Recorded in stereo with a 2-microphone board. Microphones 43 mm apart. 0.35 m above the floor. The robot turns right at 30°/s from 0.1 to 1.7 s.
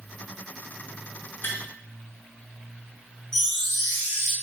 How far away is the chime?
About 1.2 m.